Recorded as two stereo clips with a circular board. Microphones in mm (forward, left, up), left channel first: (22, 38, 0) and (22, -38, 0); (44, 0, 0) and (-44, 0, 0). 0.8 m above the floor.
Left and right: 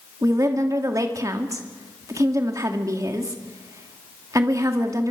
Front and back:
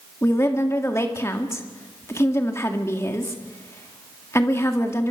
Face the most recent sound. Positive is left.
turn(degrees=-55)